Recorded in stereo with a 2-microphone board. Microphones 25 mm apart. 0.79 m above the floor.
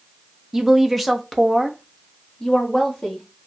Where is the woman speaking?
10° right (ahead or behind), 0.6 m; by 3.3 s 25° left (ahead or behind), 1.7 m.